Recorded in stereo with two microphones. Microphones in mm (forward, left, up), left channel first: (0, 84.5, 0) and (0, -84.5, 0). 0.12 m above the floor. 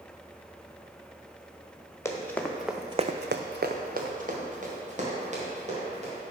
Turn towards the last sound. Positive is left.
turn(degrees=-45)  # may be behind; listen again after turning